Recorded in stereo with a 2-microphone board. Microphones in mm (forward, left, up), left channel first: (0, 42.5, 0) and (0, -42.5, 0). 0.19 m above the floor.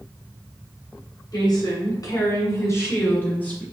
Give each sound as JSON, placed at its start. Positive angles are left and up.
{"t": 1.3, "sound": "a woman speaking", "side_deg": 55, "distance_m": 1.9}